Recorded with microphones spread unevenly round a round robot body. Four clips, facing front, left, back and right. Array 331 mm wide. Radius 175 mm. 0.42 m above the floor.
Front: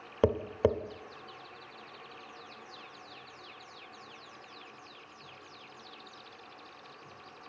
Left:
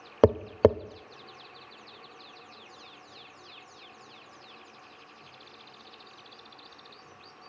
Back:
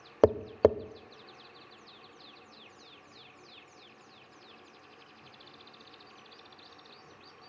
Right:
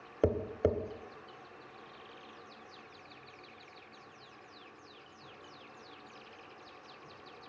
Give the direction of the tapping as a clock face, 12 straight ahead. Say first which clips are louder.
Left 9 dB, back 4 dB; 9 o'clock.